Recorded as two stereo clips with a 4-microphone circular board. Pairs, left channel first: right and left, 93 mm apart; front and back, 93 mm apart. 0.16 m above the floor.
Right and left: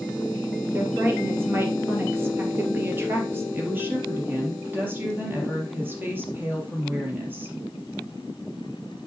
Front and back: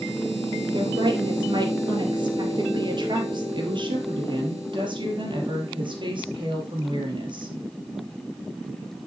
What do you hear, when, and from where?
0.7 s a woman speaking: 155° left, 2.5 m
3.5 s a woman speaking: 155° left, 3.5 m